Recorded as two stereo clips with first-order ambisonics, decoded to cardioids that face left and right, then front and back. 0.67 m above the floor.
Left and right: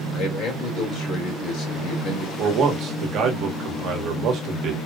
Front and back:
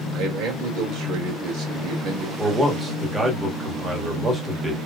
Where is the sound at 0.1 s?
140° left, 2 m.